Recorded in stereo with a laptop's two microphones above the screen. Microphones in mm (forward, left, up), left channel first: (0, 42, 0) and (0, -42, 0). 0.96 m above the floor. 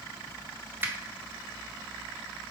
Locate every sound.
0.8 s a finger snap: 25° right (ahead or behind), 0.5 m